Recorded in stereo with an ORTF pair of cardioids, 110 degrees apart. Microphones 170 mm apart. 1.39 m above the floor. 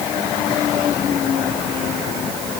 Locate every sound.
Only background noise.